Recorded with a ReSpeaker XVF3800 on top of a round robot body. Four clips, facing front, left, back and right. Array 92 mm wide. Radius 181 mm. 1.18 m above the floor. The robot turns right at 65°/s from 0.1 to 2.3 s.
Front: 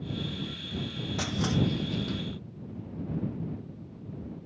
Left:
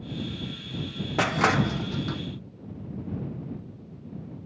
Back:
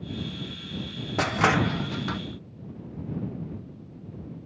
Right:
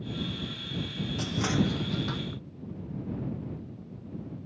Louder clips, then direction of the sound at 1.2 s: Left 7 dB, back 7 dB; 120° left.